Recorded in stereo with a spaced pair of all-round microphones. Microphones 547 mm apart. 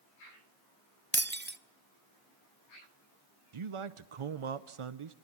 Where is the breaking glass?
20° right (ahead or behind), 0.6 m.